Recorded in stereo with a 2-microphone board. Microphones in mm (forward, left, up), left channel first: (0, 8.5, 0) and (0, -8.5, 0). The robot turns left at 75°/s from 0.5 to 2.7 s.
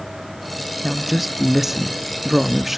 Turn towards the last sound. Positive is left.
turn(degrees=-15)  # may be behind; listen again after turning